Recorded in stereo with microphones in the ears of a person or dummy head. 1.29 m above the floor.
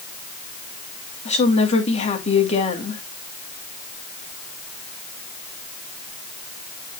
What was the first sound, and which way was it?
A woman speaking, 35° left (ahead or behind).